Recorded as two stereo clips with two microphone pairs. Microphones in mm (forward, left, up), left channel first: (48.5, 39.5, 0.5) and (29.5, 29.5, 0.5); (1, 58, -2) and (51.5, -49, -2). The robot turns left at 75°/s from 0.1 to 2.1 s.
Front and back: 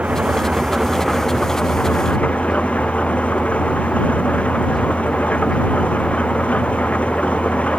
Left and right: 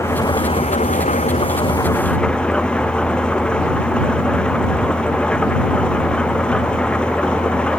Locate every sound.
0.0 s an engine running: 175° right; by 7.8 s 35° left